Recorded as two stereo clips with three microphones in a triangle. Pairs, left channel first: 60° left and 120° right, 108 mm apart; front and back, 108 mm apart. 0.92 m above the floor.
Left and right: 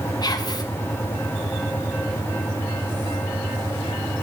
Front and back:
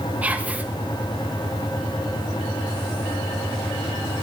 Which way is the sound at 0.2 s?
105° left.